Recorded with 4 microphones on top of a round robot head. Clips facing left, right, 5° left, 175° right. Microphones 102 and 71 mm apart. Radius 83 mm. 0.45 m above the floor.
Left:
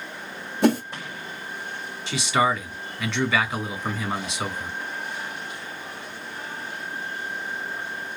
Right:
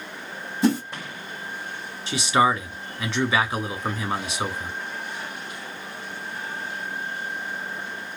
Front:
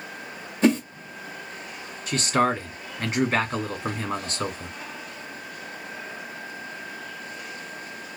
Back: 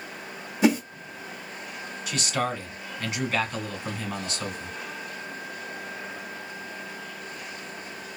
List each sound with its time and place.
0.6 s a whoosh: 105° left, 1.1 m
2.1 s a man speaking: 15° right, 1.2 m